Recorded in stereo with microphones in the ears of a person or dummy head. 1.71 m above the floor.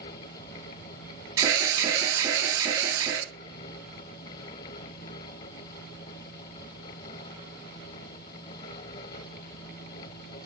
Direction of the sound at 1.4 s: 15° right (ahead or behind).